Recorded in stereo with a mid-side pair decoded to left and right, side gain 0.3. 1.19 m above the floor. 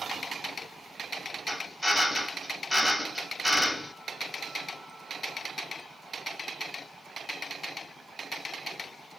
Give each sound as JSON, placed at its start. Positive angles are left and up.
{"t": 1.5, "sound": "a drill", "azimuth_deg": 10, "distance_m": 2.0}